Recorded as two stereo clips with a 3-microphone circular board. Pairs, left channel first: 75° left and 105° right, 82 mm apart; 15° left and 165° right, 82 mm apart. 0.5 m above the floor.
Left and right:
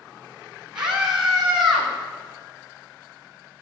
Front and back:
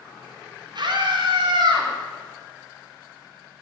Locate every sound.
0.8 s a scream: 175° left, 3 m; by 1.9 s 165° left, 3.5 m